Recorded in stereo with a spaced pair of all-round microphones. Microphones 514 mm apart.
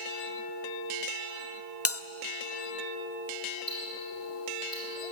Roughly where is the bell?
Left.